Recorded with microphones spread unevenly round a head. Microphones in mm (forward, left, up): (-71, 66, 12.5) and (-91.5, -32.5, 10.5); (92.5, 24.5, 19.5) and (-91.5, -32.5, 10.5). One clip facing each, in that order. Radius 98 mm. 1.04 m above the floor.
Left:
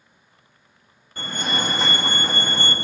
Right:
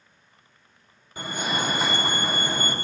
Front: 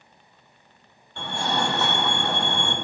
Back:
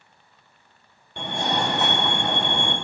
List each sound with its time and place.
1.2 s a fire alarm: 170° right, 1.1 m